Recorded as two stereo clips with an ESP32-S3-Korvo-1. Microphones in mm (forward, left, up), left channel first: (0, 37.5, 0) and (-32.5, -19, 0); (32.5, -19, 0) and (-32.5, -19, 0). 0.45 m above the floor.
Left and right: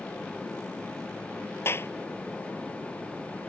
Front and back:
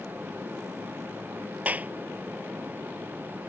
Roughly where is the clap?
Behind left.